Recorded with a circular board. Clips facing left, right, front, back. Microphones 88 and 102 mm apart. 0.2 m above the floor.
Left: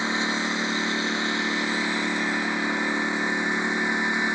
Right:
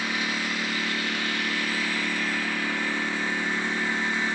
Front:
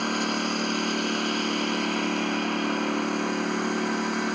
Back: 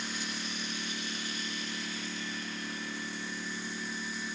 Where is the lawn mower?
25° left; by 4.3 s 20° left.